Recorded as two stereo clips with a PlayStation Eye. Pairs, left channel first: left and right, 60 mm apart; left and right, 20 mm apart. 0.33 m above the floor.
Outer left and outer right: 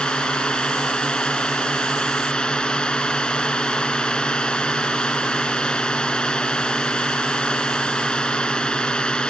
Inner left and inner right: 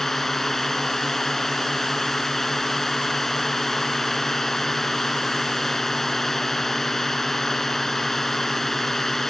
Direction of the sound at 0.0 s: 15° left (ahead or behind).